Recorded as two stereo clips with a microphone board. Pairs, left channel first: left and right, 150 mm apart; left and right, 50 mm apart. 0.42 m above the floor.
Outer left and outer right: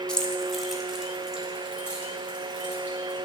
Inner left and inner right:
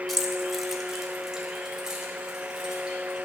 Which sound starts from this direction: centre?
Keys jangling, at 0.1 s.